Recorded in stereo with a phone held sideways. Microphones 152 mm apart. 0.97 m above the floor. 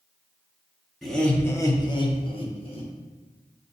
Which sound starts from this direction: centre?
Laughter, at 1.0 s.